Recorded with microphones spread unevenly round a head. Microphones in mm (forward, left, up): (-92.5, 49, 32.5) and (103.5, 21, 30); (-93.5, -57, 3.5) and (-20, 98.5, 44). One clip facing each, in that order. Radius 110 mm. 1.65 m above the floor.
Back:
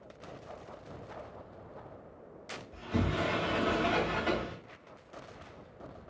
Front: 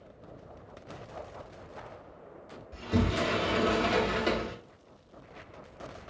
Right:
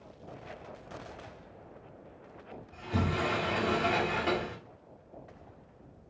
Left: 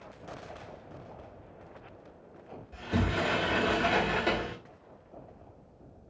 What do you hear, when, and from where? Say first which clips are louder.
2.7 s a sliding door: front 4 dB, left 2 dB; 25° left, 1.4 m